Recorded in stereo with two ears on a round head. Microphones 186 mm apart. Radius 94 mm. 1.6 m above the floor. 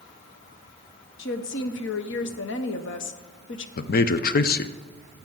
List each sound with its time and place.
1.2 s a woman speaking: 60° left (ahead or behind), 0.8 m
3.8 s a man speaking: 45° left (ahead or behind), 0.6 m